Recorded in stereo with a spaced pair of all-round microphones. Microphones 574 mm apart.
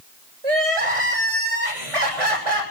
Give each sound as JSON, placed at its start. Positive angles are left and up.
{"t": 0.4, "sound": "crying", "side_deg": -70, "distance_m": 6.0}